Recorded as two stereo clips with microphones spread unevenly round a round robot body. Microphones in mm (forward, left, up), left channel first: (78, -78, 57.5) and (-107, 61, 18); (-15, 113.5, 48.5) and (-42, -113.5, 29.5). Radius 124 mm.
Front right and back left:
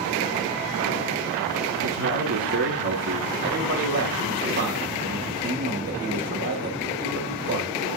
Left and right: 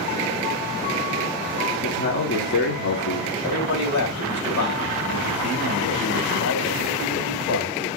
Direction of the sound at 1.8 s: 120° left.